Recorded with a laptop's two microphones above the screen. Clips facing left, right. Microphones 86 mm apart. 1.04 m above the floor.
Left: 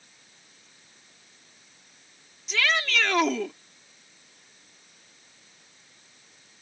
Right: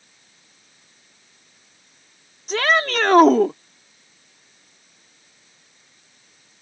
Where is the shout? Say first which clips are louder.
Right 7 dB; 45° right (ahead or behind).